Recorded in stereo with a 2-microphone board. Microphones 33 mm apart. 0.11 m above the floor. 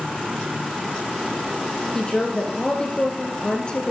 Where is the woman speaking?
25° left (ahead or behind), 1.8 m.